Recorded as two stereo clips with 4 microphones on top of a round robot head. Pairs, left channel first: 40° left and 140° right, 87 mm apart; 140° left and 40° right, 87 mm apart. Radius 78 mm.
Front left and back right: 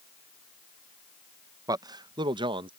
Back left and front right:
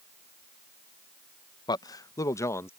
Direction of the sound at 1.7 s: 175° left.